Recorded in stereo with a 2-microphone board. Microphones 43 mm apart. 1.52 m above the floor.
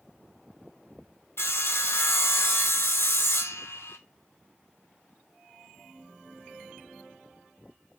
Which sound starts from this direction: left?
Sawing, at 1.4 s.